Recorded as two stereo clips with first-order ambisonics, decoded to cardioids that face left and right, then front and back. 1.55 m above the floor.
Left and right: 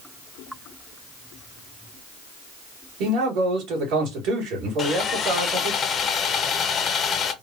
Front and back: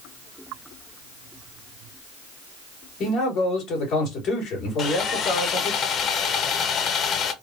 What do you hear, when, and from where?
3.0 s a man speaking: 55° right, 2 m
4.8 s sawing: 40° left, 0.5 m